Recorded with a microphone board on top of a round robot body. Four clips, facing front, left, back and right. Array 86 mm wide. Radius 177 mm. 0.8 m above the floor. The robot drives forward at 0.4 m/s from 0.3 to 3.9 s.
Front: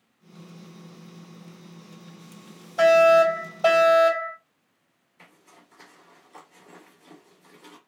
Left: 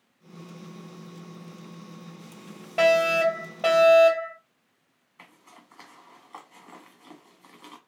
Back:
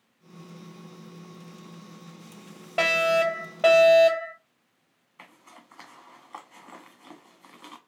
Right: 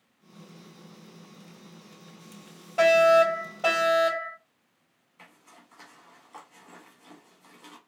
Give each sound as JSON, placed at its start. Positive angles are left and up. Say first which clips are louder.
{"t": 2.8, "sound": "a fire alarm", "louder": "right 2 dB, front 8 dB", "azimuth_deg": 165, "distance_m": 3.0}
{"t": 5.2, "sound": "a zipper", "louder": "left 2 dB, back 3 dB", "azimuth_deg": 165, "distance_m": 1.3}